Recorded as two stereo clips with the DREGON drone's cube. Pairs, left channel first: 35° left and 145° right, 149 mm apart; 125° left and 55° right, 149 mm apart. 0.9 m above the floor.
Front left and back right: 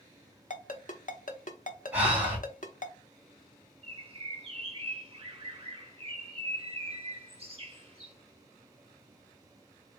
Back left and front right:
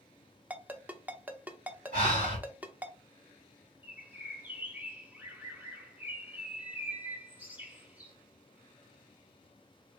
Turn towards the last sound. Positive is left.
turn(degrees=-130)